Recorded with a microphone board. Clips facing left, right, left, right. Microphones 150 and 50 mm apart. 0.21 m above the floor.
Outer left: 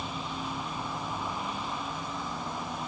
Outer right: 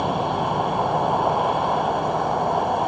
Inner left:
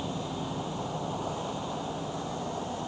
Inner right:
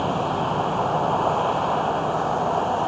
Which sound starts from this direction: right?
A vehicle, at 0.0 s.